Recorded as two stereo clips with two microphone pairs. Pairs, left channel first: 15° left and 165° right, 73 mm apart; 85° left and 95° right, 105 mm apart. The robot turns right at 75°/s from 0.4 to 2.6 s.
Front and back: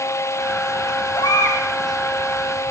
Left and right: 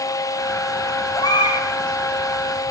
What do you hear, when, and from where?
1.1 s a baby crying: 25° left, 7.5 m; by 1.6 s 60° left, 7.5 m